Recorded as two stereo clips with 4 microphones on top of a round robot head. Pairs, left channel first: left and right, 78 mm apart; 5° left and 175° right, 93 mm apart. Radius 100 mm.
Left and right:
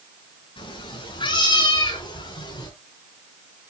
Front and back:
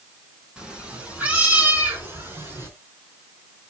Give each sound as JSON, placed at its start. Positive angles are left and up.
{"t": 0.6, "sound": "a cat meowing", "azimuth_deg": 105, "distance_m": 4.0}